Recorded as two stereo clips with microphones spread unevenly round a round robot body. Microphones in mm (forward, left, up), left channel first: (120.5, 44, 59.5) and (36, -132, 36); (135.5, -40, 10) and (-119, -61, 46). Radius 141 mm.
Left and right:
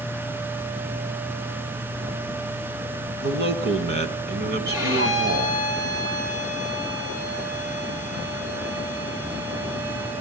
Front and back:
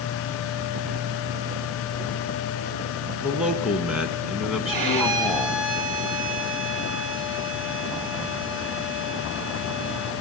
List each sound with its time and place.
3.2 s a man speaking: 90° right, 4 m; by 5.6 s 80° right, 2 m
4.7 s a violin: 165° left, 4 m